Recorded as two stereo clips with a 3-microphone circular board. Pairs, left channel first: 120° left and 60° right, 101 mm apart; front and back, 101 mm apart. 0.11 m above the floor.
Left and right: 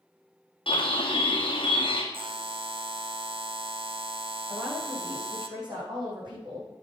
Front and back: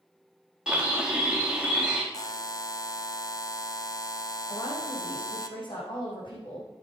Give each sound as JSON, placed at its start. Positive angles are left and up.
{"t": 0.7, "sound": "a bird", "azimuth_deg": 100, "distance_m": 2.0}
{"t": 2.1, "sound": "a buzzer", "azimuth_deg": -50, "distance_m": 0.8}
{"t": 4.5, "sound": "a woman speaking", "azimuth_deg": -30, "distance_m": 6.0}